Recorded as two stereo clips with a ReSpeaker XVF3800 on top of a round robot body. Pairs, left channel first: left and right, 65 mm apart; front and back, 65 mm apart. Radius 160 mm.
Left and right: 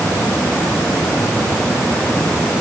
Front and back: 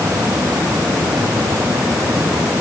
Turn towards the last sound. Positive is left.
No sound to turn to.